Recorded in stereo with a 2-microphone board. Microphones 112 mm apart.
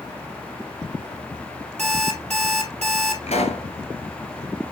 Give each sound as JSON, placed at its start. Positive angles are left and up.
{"t": 1.8, "sound": "an alarm clock", "side_deg": -75, "distance_m": 3.0}
{"t": 3.3, "sound": "a pop", "side_deg": 85, "distance_m": 1.2}